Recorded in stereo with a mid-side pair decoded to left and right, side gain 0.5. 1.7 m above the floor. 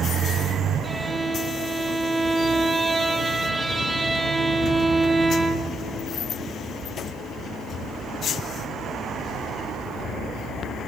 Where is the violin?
15° right, 1.3 m.